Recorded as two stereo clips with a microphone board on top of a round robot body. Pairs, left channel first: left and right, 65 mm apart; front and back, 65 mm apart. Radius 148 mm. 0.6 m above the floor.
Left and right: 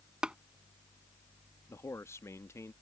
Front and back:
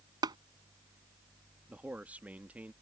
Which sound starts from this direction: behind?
Tapping, at 0.2 s.